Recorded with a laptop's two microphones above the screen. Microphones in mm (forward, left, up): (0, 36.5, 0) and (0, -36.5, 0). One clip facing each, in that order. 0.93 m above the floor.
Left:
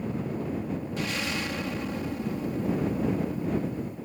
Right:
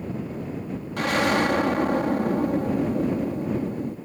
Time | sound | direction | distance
1.0 | an explosion | 65° right (ahead or behind) | ?